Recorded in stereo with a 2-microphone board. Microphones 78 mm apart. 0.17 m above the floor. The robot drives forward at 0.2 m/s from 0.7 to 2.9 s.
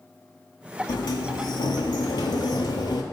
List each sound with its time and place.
0.9 s a sliding door: 65° left (ahead or behind), 0.5 m; by 3.0 s 70° left (ahead or behind), 0.5 m